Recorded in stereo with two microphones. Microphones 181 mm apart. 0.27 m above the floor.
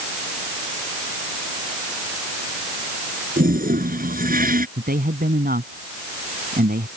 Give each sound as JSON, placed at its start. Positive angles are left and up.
{"t": 3.4, "sound": "a toilet flushing", "side_deg": -55}
{"t": 4.8, "sound": "a man speaking", "side_deg": -60}